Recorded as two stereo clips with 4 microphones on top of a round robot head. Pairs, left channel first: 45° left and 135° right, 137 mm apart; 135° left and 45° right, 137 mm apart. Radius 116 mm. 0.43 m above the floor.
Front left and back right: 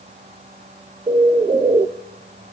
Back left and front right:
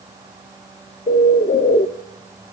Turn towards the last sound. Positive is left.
turn(degrees=165)